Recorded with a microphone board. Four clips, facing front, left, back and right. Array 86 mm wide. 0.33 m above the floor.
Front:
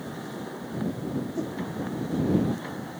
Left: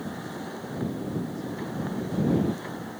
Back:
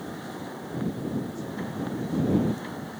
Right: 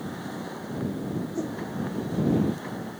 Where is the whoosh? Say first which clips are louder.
Right 4 dB, front 4 dB; 45° right.